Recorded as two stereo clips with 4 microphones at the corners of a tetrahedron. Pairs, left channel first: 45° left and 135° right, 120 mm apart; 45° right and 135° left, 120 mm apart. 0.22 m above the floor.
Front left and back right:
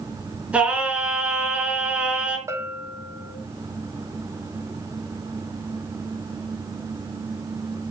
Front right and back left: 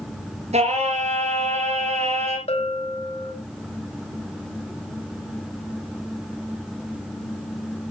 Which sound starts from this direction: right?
A bell, at 2.5 s.